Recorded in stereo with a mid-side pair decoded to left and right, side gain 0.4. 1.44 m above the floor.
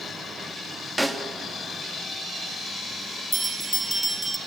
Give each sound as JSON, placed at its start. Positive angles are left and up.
{"t": 1.0, "sound": "a snare drum", "azimuth_deg": -10, "distance_m": 2.5}
{"t": 3.3, "sound": "a bell", "azimuth_deg": -20, "distance_m": 2.0}